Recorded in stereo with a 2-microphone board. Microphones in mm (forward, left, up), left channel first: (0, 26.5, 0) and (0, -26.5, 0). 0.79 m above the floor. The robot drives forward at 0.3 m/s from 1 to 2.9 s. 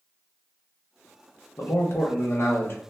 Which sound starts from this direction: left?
A man speaking, at 1.6 s.